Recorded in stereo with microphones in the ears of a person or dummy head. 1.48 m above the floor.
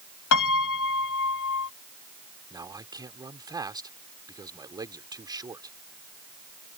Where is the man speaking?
20° right (ahead or behind).